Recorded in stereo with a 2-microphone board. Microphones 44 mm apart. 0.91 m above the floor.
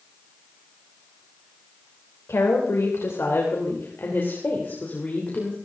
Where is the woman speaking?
80° left, 3.5 m; by 5.5 s 35° left (ahead or behind), 3 m.